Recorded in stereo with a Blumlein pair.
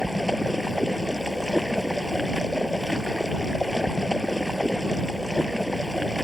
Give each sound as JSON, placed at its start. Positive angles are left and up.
{"t": 0.0, "sound": "running water", "azimuth_deg": 0}